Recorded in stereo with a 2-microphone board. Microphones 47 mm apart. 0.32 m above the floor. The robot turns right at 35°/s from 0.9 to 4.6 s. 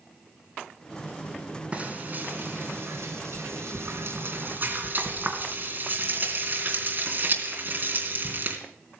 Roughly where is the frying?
Right.